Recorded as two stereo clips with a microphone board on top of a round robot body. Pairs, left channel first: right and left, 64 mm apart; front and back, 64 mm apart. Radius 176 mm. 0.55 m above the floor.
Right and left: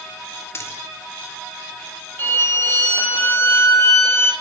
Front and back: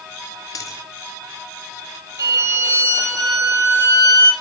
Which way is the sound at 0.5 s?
40° right.